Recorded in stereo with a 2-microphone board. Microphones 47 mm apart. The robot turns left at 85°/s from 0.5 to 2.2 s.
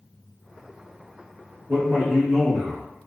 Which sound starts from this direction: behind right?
A man speaking, at 1.7 s.